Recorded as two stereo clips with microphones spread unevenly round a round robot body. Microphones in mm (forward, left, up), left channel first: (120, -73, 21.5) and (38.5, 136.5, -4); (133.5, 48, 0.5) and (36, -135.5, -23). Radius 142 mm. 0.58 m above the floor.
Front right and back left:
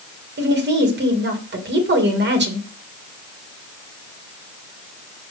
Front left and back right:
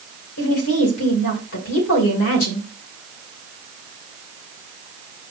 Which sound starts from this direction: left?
A woman speaking, at 0.4 s.